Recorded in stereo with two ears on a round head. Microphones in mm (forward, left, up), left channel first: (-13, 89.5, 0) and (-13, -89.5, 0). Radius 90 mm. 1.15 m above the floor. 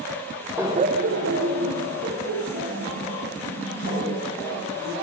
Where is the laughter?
10° right (ahead or behind), 0.5 m; by 4.9 s 50° right (ahead or behind), 4 m.